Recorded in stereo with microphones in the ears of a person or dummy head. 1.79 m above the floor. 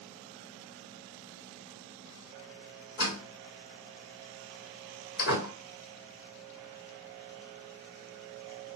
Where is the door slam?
55° left (ahead or behind), 1.9 m.